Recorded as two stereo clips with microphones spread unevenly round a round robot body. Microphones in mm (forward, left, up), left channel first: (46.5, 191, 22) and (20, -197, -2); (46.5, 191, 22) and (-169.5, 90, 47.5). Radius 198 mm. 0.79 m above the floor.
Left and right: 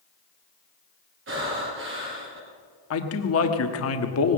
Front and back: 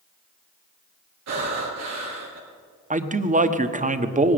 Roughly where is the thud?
No thud in this recording.